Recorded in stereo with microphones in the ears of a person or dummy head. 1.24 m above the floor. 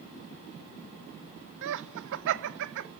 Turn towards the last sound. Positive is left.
turn(degrees=-70)  # may be behind; listen again after turning